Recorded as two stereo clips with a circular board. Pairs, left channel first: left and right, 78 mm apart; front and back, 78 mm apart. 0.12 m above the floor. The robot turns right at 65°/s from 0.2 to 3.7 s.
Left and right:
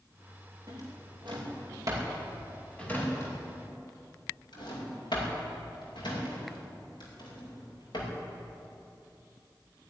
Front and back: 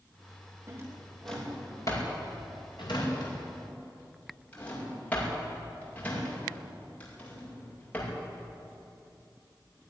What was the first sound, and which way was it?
A drawer, 125° right.